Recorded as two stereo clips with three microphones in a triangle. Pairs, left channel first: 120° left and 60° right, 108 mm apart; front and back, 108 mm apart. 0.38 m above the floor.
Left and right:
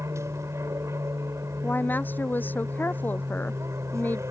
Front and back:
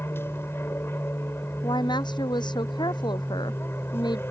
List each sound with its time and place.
0.0 s an aircraft: 40° right
1.6 s a woman speaking: 45° left